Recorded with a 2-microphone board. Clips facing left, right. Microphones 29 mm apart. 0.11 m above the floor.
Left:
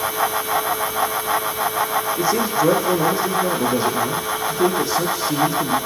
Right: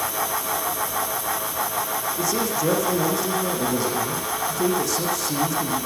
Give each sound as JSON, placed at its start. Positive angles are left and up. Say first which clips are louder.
{"t": 2.2, "sound": "a man speaking", "louder": "left 5 dB", "side_deg": 25, "distance_m": 6.5}